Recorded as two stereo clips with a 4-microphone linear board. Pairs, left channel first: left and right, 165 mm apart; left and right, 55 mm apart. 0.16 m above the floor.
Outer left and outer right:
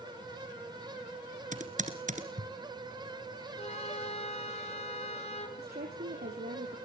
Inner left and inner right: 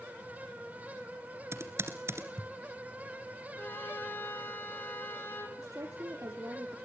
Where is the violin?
40° left (ahead or behind), 1.9 m.